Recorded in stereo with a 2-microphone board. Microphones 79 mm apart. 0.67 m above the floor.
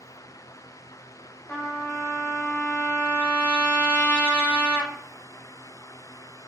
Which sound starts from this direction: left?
A trumpet, at 1.5 s.